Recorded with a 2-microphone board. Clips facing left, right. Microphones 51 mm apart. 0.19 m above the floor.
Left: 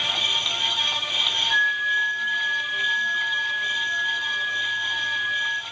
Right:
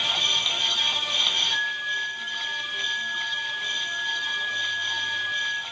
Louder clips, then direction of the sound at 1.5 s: Left 6 dB; 35° left (ahead or behind).